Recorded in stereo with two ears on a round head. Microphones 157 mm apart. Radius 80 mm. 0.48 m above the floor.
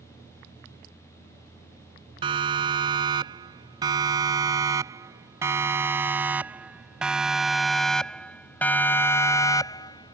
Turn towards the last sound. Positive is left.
turn(degrees=25)  # may be behind; listen again after turning